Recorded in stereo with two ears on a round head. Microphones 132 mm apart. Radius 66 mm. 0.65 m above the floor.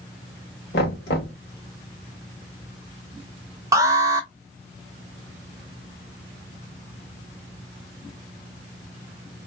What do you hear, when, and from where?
0.7 s knocking: 80° left, 1.9 m
3.7 s an alarm: 20° right (ahead or behind), 1.0 m